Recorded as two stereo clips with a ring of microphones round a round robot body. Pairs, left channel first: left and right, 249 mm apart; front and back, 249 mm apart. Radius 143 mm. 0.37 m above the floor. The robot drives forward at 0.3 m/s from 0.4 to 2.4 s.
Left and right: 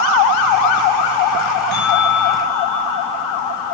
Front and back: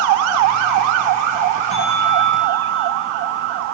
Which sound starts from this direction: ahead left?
A bell, at 1.7 s.